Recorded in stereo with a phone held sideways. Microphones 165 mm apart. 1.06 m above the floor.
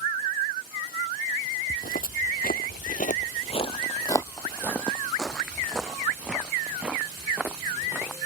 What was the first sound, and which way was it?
Footsteps, 55° left (ahead or behind).